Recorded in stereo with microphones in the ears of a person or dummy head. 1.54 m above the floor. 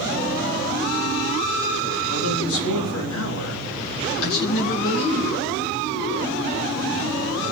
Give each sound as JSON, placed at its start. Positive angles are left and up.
{"t": 2.1, "sound": "a man speaking", "side_deg": 80, "distance_m": 3.5}